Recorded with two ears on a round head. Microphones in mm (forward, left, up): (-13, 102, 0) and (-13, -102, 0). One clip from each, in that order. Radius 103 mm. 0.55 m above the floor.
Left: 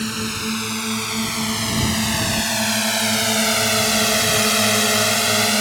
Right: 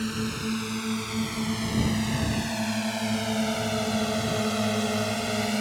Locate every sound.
0.0 s a drone: 25° left (ahead or behind); by 5.6 s 55° left (ahead or behind)